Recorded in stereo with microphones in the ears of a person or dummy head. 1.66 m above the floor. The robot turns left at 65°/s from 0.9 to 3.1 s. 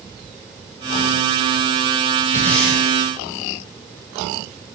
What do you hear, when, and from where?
2.3 s breathing: 20° left (ahead or behind), 6.5 m; by 2.8 s 10° right (ahead or behind), 6.5 m